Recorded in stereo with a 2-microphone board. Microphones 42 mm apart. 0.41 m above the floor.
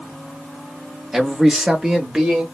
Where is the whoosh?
I don't hear a whoosh.